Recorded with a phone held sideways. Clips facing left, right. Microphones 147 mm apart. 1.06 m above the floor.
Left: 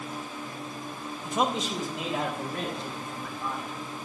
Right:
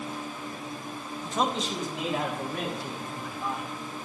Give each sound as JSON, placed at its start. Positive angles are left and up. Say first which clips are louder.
{"t": 1.2, "sound": "a man speaking", "louder": "left 1 dB", "side_deg": 10, "distance_m": 1.2}